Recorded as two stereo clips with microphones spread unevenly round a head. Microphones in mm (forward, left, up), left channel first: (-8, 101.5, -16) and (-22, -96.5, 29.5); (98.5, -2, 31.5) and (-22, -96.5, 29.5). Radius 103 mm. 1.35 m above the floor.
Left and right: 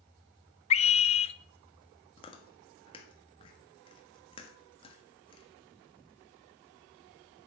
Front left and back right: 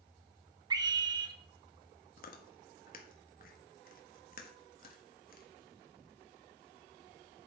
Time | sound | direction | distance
0.7 | a scream | 145° left | 0.8 m
2.2 | chewing | 15° left | 1.4 m